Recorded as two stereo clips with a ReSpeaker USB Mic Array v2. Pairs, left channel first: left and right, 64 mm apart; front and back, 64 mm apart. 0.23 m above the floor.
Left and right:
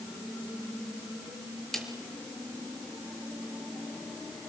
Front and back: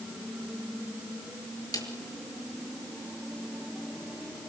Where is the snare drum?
5° left, 4.5 m.